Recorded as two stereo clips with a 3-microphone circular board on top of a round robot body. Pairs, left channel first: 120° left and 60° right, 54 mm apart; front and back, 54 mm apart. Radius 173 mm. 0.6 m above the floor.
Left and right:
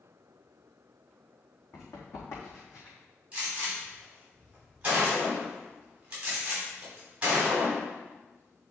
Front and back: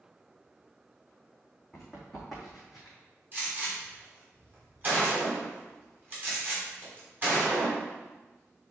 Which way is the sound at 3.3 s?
125° right.